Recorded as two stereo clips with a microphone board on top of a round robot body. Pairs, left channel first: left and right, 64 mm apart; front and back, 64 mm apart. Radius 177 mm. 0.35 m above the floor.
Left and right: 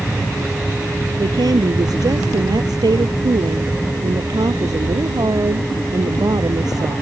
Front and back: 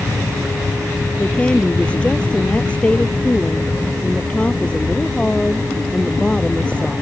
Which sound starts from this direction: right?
A woman speaking, at 1.2 s.